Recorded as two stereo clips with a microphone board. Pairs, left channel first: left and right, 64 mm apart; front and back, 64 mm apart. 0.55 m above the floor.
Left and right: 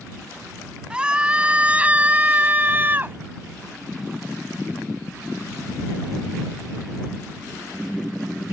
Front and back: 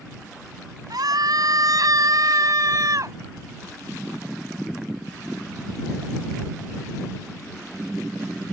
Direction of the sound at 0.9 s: 165° right.